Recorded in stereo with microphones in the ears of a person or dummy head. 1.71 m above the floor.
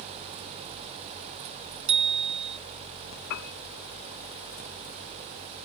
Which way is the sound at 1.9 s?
30° right (ahead or behind).